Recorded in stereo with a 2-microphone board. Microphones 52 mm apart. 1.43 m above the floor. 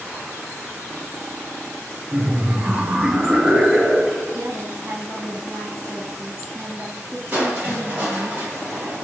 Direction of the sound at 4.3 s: 60° right (ahead or behind).